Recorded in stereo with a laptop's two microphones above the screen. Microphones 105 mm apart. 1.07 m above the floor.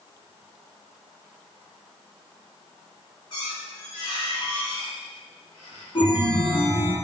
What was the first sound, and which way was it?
A squeak, 50° left (ahead or behind).